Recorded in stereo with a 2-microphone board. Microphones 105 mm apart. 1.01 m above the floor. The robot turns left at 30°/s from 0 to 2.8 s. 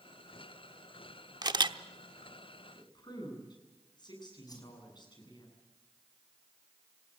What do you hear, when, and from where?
1.4 s a camera shutter: 40° right (ahead or behind), 1.0 m; by 1.8 s 50° right (ahead or behind), 1.0 m
2.8 s a woman speaking: 45° left (ahead or behind), 8 m
4.5 s a whoosh: 40° left (ahead or behind), 5 m